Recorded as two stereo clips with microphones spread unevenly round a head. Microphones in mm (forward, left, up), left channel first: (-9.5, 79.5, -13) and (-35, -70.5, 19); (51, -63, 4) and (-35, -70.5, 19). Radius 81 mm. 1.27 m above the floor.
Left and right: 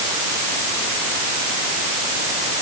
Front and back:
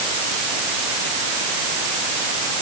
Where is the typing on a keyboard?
I don't hear typing on a keyboard.